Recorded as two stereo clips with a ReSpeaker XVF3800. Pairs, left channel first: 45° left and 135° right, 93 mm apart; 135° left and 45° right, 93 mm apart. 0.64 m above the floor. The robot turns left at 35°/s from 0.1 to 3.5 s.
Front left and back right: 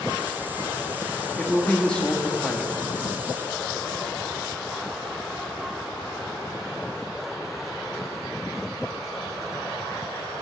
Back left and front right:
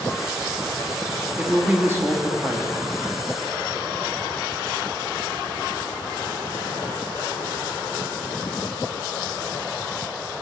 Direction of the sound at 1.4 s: 5° right.